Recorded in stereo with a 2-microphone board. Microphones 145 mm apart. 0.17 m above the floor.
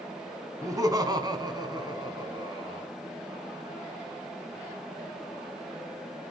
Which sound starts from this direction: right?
Laughter, at 0.6 s.